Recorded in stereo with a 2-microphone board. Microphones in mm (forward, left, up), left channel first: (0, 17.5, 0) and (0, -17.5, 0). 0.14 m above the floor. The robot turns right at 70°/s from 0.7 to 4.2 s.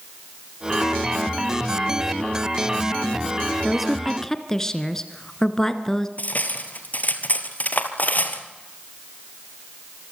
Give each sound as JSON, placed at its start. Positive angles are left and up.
{"t": 3.6, "sound": "a woman speaking", "azimuth_deg": -20, "distance_m": 1.4}
{"t": 6.2, "sound": "cutlery clinking", "side_deg": 55, "distance_m": 1.9}